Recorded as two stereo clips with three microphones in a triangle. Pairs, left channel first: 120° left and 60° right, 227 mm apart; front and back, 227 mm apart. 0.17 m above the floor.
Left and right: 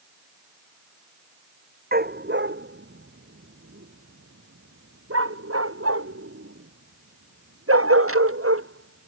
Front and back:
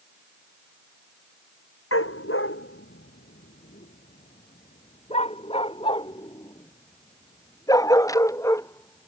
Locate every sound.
1.9 s a dog barking: 15° right; by 9.1 s 80° right